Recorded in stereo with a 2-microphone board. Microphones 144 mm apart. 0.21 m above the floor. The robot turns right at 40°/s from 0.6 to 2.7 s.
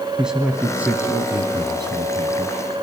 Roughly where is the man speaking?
Behind.